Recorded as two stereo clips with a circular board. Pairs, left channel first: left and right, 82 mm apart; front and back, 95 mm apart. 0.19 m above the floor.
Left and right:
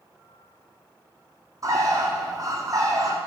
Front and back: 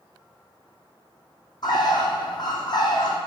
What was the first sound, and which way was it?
A bird, 45° right.